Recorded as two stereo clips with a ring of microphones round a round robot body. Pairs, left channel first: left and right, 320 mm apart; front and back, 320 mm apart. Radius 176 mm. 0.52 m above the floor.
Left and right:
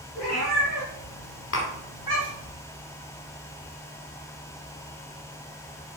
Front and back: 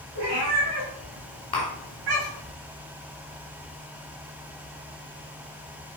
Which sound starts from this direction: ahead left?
Tapping, at 1.5 s.